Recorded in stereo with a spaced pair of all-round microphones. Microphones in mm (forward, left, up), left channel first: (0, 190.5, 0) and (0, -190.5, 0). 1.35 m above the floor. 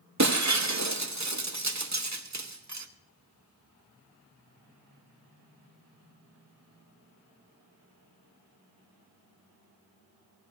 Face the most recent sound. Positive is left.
turn(degrees=-45)  # may be behind; listen again after turning